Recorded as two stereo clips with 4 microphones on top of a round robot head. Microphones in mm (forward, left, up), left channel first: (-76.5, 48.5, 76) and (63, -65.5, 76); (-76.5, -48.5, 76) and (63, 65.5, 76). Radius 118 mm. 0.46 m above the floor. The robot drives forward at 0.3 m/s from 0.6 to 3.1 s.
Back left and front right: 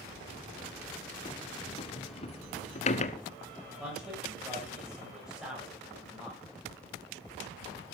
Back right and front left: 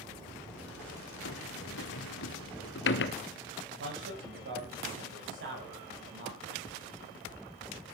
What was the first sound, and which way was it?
A sliding door, 150° right.